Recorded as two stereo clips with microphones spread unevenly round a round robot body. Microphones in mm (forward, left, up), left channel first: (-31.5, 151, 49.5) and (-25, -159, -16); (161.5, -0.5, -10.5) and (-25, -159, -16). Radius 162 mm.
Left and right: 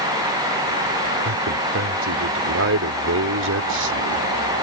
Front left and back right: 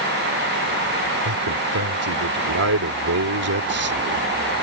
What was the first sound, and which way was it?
A man speaking, 130° right.